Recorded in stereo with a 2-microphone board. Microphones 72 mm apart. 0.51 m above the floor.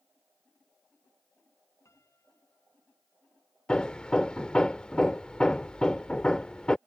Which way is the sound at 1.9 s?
40° left (ahead or behind).